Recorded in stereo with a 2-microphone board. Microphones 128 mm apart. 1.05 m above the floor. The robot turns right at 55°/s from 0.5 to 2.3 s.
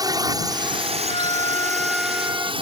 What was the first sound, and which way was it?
A drone, 145° right.